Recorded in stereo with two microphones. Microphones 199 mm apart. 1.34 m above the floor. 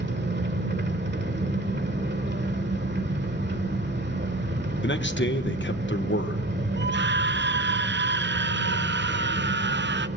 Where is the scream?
65° right (ahead or behind), 0.6 m.